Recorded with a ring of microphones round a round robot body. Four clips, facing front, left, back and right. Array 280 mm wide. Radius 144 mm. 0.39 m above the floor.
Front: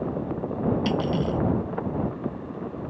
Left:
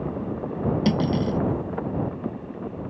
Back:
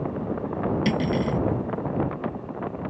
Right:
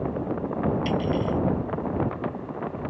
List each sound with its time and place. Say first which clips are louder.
0.8 s cutlery clinking: left 2 dB, back 1 dB; 110° left